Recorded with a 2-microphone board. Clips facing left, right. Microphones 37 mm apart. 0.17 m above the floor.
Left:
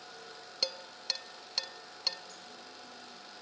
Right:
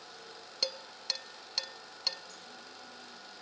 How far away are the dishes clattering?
About 0.7 m.